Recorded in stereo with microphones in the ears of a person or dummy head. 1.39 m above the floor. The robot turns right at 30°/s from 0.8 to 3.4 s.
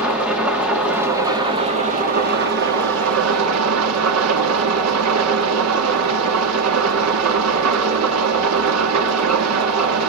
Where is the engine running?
170° right, 3 m; by 10.1 s 95° right, 3 m.